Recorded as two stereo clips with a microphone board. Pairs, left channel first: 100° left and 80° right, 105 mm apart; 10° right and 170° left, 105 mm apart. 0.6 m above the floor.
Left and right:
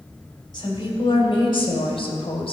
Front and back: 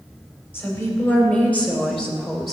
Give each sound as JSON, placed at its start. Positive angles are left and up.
{"t": 0.5, "sound": "a woman speaking", "azimuth_deg": 60, "distance_m": 3.5}